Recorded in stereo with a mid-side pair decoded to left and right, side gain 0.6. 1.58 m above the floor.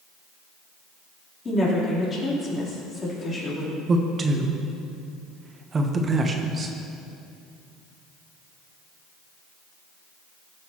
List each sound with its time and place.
1.4 s a woman speaking: 35° left, 3.5 m
3.9 s a man speaking: 30° right, 1.0 m